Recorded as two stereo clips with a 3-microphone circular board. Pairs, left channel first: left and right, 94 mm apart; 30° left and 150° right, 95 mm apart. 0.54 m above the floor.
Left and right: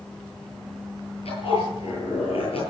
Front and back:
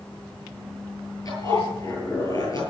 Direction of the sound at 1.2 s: 80° left.